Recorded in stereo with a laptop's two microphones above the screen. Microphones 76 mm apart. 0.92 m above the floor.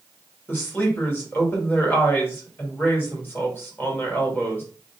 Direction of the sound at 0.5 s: 25° left (ahead or behind).